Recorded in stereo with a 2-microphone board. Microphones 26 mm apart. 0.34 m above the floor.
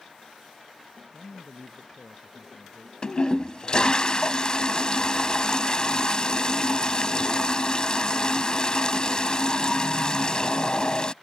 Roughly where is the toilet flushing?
Left.